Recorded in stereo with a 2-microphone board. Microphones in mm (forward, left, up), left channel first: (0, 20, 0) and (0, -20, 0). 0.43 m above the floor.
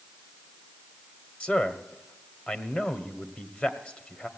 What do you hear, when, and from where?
1.4 s a man speaking: 30° left (ahead or behind), 1.1 m